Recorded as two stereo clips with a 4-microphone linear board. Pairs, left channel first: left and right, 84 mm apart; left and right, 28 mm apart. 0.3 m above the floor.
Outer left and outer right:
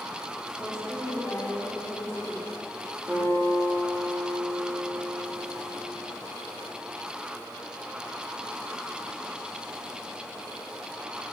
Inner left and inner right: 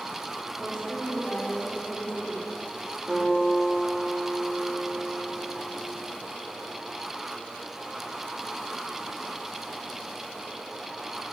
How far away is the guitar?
About 3.5 m.